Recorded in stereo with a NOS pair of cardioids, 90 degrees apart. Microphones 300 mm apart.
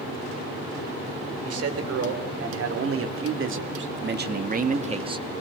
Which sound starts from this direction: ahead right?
A man speaking, at 1.4 s.